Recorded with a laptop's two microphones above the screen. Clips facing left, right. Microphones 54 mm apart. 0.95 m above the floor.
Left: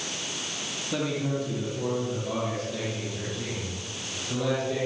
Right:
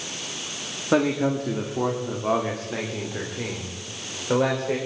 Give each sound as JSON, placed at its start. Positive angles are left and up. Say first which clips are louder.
{"t": 0.9, "sound": "a man speaking", "louder": "right 8 dB", "side_deg": -75, "distance_m": 1.9}